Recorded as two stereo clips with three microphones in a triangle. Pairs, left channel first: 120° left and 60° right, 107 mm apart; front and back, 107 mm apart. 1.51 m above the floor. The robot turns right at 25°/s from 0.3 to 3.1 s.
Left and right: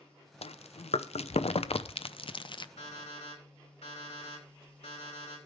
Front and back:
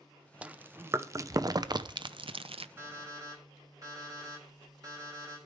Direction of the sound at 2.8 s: 115° left.